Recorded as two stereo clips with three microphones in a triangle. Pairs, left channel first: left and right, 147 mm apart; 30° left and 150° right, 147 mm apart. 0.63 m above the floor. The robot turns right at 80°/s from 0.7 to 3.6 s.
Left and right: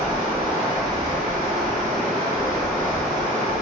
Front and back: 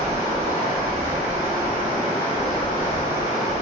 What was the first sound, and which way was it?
Running water, 160° right.